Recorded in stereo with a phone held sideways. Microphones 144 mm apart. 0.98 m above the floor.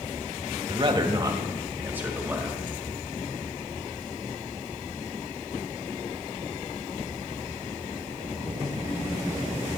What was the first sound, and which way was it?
A man speaking, 40° right (ahead or behind).